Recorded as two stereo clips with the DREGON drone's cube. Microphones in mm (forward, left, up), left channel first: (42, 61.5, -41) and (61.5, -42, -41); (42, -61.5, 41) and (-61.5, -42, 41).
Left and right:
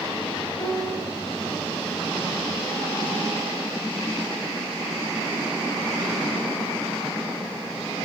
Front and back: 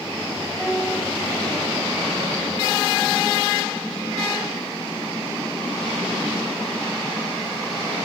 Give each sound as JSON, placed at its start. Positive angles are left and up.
{"t": 0.6, "sound": "a piano", "azimuth_deg": 95, "distance_m": 1.9}